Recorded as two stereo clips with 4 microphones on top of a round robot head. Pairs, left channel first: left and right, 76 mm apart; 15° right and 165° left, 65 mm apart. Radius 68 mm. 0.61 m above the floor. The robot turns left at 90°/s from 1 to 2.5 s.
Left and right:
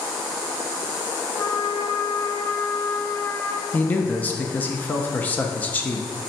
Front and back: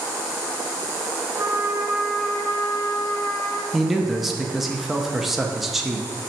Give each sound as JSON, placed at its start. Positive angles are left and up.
{"t": 1.4, "sound": "a trumpet", "azimuth_deg": 135, "distance_m": 0.5}
{"t": 3.7, "sound": "a man speaking", "azimuth_deg": 85, "distance_m": 0.5}